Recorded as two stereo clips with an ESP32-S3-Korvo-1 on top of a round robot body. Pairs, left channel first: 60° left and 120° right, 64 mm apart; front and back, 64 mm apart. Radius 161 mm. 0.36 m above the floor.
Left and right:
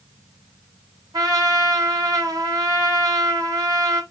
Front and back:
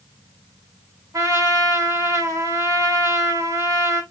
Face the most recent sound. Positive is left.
turn(degrees=-140)